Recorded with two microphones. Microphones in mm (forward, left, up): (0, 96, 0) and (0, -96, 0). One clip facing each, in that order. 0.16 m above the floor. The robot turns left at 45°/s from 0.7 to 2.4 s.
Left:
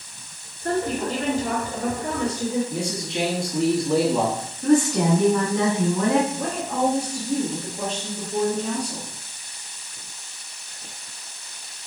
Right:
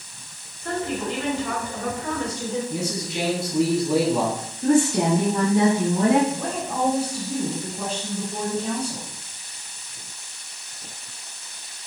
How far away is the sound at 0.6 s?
About 2.5 m.